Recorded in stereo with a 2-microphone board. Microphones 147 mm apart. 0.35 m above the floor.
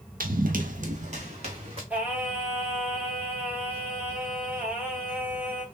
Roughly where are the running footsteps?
Right.